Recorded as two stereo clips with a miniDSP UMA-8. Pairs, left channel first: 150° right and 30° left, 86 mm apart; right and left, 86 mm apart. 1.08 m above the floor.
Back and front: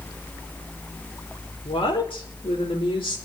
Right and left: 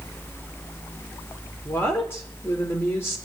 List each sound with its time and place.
1.6 s a woman speaking: 150° right, 4 m